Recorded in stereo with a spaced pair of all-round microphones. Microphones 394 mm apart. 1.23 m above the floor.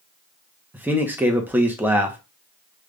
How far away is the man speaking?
About 0.8 m.